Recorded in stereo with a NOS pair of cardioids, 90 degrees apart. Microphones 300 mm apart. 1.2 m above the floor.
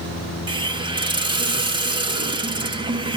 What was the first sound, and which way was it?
A hiss, 15° right.